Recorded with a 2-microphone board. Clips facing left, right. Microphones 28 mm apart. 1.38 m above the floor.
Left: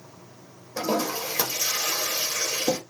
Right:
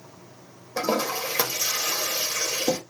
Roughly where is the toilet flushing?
Right.